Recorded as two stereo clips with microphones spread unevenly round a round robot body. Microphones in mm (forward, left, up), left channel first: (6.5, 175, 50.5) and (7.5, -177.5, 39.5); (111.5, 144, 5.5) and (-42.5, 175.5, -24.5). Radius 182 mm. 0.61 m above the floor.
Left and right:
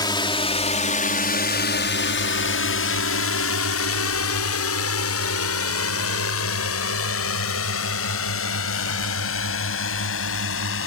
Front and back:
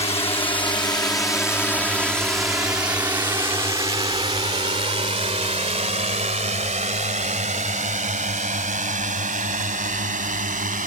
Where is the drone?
20° left; by 10.9 s 145° left.